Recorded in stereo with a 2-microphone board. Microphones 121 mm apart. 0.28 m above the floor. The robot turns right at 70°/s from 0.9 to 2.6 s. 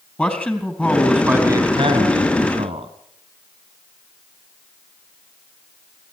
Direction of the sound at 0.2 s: 165° left.